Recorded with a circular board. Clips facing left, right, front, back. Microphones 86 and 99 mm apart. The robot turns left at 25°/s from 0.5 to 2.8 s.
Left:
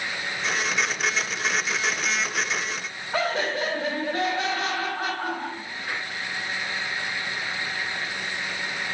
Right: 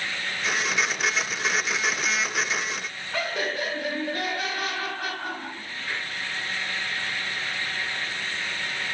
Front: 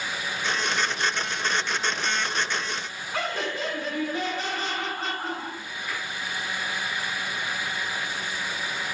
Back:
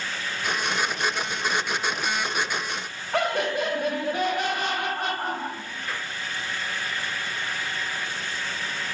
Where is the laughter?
150° left, 4 m.